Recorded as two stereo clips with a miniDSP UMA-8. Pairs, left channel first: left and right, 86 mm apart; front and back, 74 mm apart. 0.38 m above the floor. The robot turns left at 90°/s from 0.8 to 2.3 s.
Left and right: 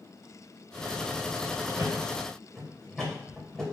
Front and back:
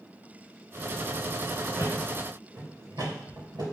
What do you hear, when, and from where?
1.8 s a thud: 135° right, 3 m; by 3.6 s 175° left, 3 m